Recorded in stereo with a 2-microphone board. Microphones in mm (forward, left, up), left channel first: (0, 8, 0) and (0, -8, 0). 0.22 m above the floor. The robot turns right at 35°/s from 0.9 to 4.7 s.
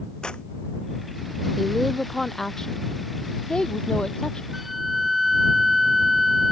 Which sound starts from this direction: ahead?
A woman speaking, at 1.6 s.